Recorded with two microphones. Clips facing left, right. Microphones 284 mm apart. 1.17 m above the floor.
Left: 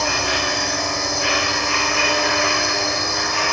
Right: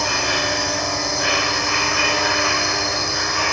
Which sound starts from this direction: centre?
An insect, at 0.0 s.